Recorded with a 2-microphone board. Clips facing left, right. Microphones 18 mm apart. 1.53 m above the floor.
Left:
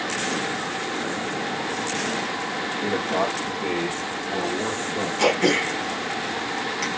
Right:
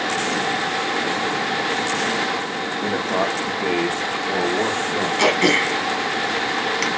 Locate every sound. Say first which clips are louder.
2.8 s a man speaking: right 2 dB; 15° right (ahead or behind), 0.9 m; by 5.1 s 85° right, 1.3 m
5.2 s throat clearing: right 3 dB; 40° right (ahead or behind), 0.9 m